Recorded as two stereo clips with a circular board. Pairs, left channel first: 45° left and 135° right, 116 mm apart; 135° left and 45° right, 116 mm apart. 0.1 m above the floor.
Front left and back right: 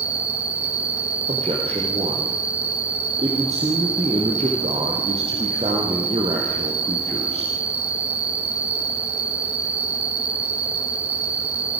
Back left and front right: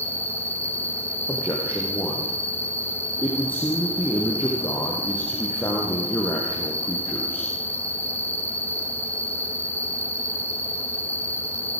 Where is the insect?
155° right, 2.0 m.